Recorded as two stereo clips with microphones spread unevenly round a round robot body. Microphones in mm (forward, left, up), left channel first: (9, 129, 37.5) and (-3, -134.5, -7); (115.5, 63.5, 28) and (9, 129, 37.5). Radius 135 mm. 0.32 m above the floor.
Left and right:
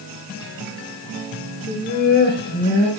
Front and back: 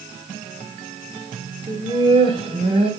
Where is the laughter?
135° left, 1.5 m; by 2.9 s 140° left, 2.5 m.